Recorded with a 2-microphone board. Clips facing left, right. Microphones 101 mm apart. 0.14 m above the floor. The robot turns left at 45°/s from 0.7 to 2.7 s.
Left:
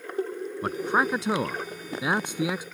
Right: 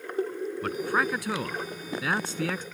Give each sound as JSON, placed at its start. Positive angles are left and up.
{"t": 0.6, "sound": "a man speaking", "side_deg": 20}